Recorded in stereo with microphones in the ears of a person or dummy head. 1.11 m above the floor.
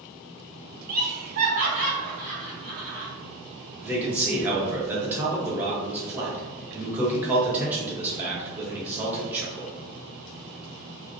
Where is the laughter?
45° right (ahead or behind), 0.5 m; by 3.1 s 40° right (ahead or behind), 1.7 m.